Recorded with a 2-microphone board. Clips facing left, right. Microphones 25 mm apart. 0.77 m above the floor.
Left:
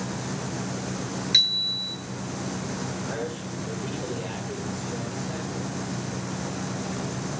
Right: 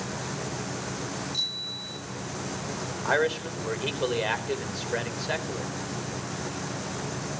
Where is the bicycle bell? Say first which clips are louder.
Left 12 dB; 70° left (ahead or behind), 8.5 m.